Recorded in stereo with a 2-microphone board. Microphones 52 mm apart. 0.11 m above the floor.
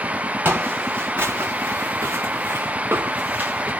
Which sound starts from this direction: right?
Footsteps, at 0.5 s.